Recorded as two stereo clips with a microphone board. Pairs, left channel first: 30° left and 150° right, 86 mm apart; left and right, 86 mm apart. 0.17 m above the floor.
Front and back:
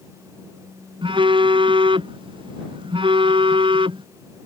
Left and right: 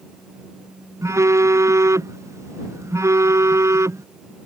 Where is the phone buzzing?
145° right.